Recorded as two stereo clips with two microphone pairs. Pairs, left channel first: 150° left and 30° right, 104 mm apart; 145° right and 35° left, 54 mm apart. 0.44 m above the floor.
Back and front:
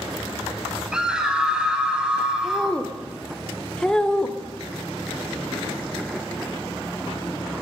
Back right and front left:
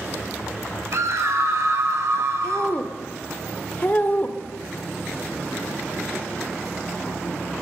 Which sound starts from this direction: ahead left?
A scream, at 0.9 s.